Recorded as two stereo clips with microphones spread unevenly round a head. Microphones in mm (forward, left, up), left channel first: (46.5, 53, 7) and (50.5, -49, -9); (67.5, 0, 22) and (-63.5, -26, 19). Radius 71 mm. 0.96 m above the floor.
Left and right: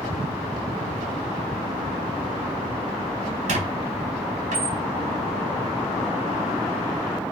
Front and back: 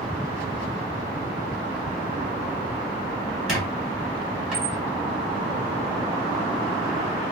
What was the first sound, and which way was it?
A squeak, 80° right.